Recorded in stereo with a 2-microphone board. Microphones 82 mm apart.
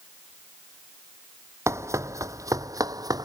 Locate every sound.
1.7 s running footsteps: 35° right (ahead or behind); by 3.2 s 50° right (ahead or behind)